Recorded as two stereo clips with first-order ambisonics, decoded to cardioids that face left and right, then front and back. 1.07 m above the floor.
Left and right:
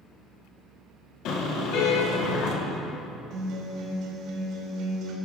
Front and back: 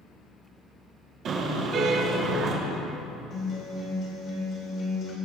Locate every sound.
1.2 s a car horn: 125° left, 3.5 m
3.3 s a guitar: 50° right, 4 m